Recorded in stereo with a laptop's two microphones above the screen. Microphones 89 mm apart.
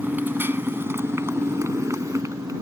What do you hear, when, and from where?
0.0 s a motorcycle: 25° right (ahead or behind); by 2.6 s 40° right (ahead or behind)